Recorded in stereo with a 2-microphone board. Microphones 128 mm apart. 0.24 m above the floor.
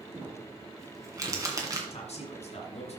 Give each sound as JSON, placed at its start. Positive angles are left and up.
{"t": 0.1, "sound": "crumpling", "side_deg": -30, "distance_m": 1.8}
{"t": 1.9, "sound": "a man speaking", "side_deg": 60, "distance_m": 1.9}